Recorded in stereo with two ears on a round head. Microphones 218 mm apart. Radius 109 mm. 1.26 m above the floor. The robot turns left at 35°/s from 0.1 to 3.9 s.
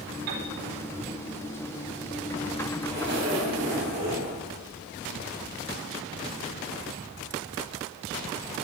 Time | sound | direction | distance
0.3 | a piano | 85° right | 2.5 m
2.8 | a zipper | 45° right | 3.5 m